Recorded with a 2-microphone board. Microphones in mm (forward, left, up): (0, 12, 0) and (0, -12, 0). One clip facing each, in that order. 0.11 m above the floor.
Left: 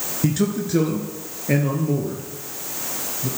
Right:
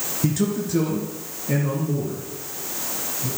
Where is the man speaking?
15° left (ahead or behind), 1.1 m; by 3.3 s 50° left (ahead or behind), 2 m.